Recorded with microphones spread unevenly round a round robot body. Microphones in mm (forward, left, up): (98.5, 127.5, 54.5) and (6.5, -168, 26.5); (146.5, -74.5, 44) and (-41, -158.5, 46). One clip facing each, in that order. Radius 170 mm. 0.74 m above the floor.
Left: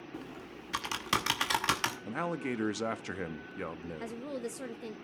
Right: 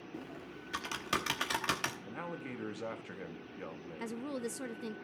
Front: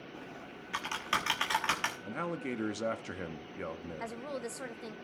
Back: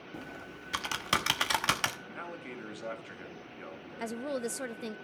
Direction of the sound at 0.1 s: 155° left.